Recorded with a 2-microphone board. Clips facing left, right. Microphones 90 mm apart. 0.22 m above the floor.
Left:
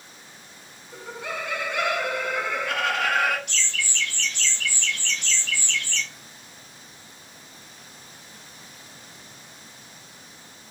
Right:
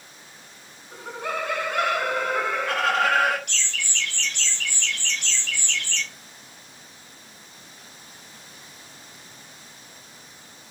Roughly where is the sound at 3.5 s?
Right.